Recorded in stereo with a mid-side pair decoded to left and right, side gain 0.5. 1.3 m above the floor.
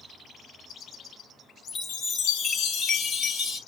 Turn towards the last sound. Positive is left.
turn(degrees=50)